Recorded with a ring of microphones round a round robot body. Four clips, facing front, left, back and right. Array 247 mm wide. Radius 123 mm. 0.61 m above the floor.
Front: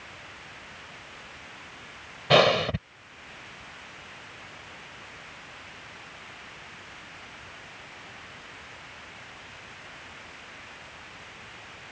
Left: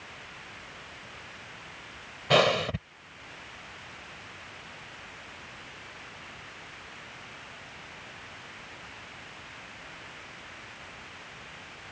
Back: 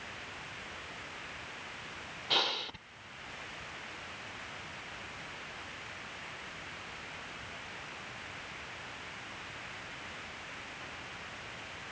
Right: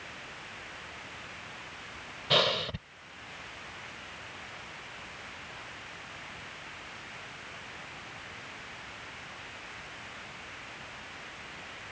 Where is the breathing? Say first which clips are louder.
Left 6 dB, front 17 dB; 20° left.